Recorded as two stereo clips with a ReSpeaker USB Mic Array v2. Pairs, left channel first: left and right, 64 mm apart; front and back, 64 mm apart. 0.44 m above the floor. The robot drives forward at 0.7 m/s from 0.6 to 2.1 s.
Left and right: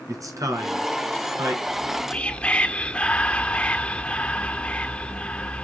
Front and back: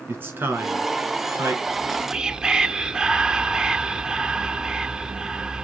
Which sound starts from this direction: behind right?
A man speaking, at 0.1 s.